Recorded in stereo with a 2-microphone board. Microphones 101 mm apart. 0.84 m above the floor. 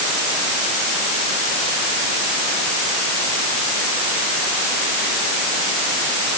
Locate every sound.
Only background noise.